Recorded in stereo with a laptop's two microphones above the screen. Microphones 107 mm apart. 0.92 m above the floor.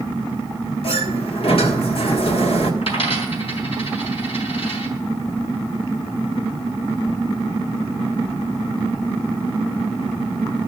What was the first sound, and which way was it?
A sliding door, 60° left (ahead or behind).